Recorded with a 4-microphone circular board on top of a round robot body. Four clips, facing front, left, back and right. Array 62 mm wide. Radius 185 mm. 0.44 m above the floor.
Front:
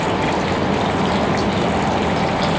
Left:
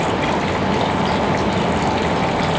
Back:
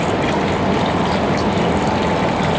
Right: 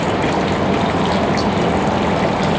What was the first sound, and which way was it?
Only background noise.